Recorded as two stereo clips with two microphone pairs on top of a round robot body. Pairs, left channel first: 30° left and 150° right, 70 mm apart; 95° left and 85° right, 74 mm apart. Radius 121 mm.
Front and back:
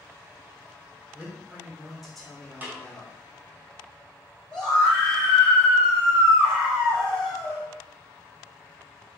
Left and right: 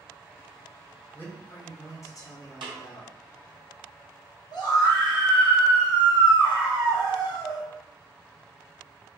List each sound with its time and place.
1.1 s a man speaking: 145° left, 1.5 m; by 3.1 s 100° left, 1.8 m
2.6 s a snare drum: 85° right, 0.9 m
4.5 s a scream: 110° left, 1.8 m